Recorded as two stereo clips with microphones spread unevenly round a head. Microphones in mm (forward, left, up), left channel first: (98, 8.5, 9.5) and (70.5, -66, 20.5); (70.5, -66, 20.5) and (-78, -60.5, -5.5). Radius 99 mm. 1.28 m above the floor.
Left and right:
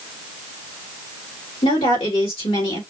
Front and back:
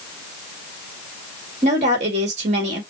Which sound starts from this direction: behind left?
A woman speaking, at 1.6 s.